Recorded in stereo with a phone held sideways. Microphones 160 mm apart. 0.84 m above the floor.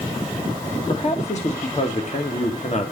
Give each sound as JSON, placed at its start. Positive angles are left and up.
{"t": 0.9, "sound": "a man speaking", "side_deg": 45, "distance_m": 1.3}